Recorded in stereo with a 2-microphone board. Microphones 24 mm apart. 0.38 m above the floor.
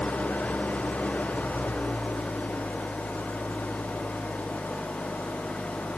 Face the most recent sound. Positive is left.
turn(degrees=85)